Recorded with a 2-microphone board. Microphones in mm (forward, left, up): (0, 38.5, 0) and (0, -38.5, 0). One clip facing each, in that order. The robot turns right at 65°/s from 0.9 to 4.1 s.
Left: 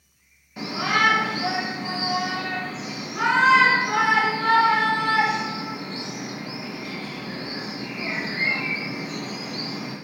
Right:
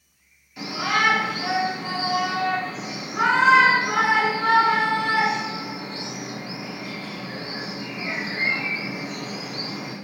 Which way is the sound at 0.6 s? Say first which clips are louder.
Left 1 dB; 25° left (ahead or behind).